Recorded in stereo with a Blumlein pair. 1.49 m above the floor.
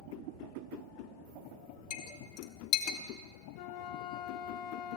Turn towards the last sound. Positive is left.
turn(degrees=45)